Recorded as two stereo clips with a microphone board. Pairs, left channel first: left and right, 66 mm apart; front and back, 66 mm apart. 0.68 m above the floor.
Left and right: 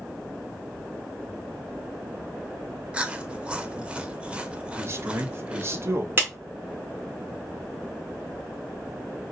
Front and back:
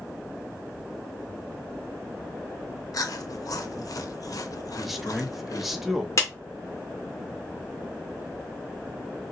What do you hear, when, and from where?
2.9 s chewing: 15° right, 0.6 m
4.8 s a man speaking: 95° right, 0.8 m
6.2 s a clap: 35° right, 1.8 m